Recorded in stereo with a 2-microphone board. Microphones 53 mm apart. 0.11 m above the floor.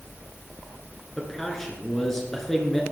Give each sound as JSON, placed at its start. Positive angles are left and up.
{"t": 1.2, "sound": "a man speaking", "side_deg": 10, "distance_m": 1.9}